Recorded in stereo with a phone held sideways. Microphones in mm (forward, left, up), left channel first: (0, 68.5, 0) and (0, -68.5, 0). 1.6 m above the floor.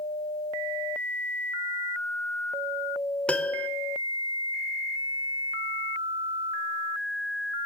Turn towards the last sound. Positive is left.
turn(degrees=10)  # may be behind; listen again after turning